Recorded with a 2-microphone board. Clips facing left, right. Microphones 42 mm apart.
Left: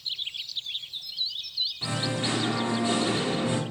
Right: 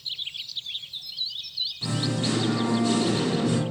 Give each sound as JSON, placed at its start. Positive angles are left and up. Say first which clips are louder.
{"t": 1.8, "sound": "singing", "louder": "right 3 dB", "side_deg": 20, "distance_m": 1.5}